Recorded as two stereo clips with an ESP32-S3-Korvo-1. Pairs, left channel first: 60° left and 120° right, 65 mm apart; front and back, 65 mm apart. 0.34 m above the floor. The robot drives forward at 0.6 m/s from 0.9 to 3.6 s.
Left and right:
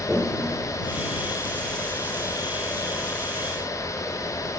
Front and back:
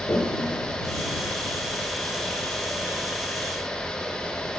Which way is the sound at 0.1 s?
20° right.